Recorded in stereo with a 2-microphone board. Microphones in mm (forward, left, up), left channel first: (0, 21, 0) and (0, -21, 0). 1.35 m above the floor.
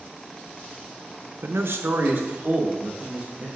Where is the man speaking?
75° right (ahead or behind), 0.7 m; by 3.5 s 40° right (ahead or behind), 3 m.